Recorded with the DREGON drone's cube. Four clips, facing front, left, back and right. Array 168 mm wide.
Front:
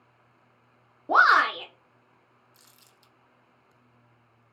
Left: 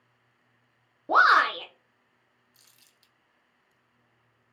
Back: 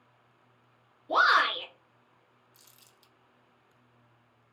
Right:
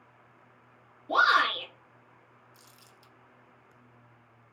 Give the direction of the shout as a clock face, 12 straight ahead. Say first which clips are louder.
Left 4 dB, front 4 dB; 11 o'clock.